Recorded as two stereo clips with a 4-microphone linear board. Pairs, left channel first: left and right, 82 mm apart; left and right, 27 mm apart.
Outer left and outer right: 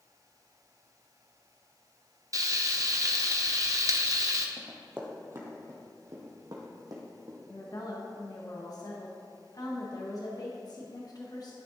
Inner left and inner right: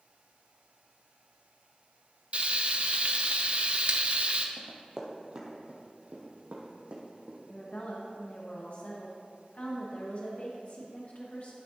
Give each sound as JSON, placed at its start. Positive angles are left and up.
{"t": 2.3, "sound": "frying", "side_deg": -45, "distance_m": 0.6}
{"t": 4.6, "sound": "running footsteps", "side_deg": -25, "distance_m": 1.5}
{"t": 7.5, "sound": "a woman speaking", "side_deg": 50, "distance_m": 1.2}